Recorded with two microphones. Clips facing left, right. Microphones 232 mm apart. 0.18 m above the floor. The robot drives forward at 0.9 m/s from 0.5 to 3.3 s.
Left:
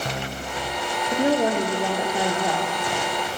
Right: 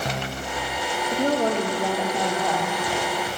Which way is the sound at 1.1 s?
10° left (ahead or behind).